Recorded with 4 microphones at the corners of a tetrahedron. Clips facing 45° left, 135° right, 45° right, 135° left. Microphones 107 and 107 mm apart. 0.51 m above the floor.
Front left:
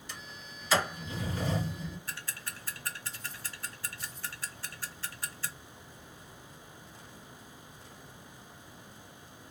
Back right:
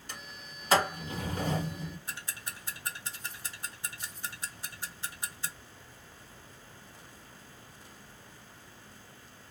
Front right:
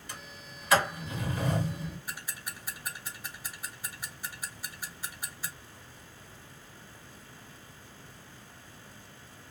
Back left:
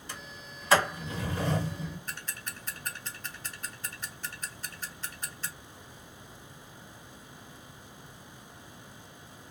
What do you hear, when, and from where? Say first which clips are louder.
0.1 s a sliding door: back right 1 dB, back left 1 dB; 170° right, 1.6 m
2.1 s ticking: even, even; 105° right, 0.6 m